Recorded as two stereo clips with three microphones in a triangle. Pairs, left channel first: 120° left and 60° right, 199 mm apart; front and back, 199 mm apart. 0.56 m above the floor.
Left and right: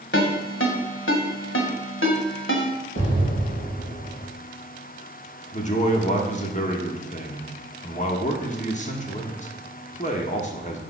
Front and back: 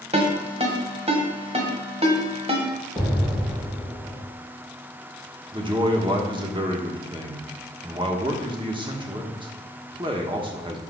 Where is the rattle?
No rattle in this recording.